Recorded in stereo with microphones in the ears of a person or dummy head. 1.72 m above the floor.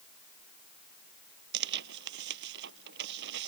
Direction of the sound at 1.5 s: 70° right (ahead or behind).